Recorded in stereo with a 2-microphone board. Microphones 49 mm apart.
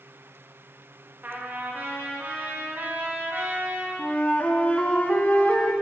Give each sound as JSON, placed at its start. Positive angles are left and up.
{"t": 1.2, "sound": "a trumpet", "side_deg": -45, "distance_m": 1.8}
{"t": 4.0, "sound": "a flute", "side_deg": 35, "distance_m": 1.0}